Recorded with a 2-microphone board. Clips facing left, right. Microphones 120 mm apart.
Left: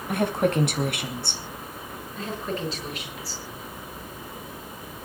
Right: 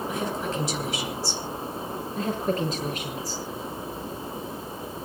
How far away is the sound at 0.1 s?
About 3.5 m.